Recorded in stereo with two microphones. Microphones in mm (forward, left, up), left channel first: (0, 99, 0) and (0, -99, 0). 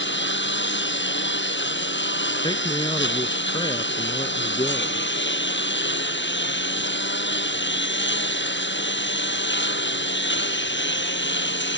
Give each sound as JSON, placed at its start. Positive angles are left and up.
{"t": 0.0, "sound": "a lawn mower", "side_deg": 70}
{"t": 2.4, "sound": "a man speaking", "side_deg": 25}